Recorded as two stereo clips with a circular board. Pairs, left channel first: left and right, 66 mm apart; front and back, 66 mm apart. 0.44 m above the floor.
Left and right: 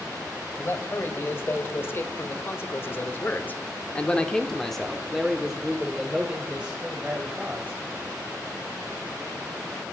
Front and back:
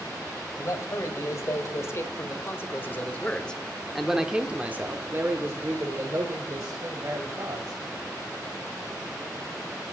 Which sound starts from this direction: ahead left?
A man speaking, at 0.6 s.